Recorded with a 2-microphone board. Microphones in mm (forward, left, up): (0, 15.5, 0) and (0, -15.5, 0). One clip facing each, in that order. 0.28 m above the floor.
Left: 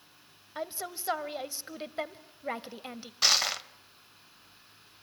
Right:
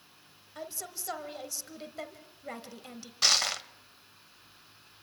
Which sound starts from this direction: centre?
Crushing, at 3.2 s.